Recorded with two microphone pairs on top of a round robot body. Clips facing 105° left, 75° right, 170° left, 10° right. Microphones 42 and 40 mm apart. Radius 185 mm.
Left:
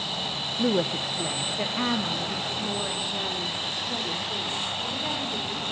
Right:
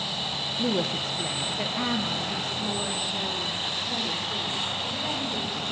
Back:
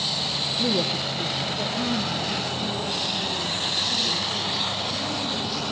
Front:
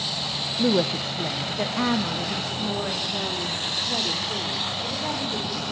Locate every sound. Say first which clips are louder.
0.6 s a woman speaking: left 3 dB, front 4 dB; 25° left, 1.1 m; by 5.6 s 20° left, 5.5 m